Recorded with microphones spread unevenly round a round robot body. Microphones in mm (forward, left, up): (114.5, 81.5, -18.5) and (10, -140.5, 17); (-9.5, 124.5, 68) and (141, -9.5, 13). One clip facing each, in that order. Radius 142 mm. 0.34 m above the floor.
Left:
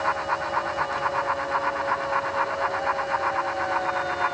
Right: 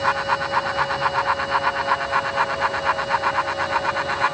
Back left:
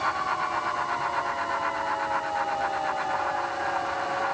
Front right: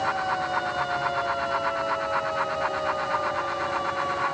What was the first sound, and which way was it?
Only background noise.